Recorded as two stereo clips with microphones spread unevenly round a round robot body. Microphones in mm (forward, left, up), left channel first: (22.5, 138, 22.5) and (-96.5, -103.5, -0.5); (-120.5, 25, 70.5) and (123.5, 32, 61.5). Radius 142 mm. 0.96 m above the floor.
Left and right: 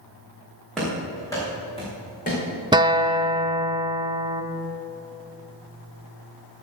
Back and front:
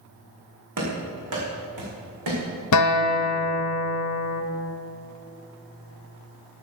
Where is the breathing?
I don't hear breathing.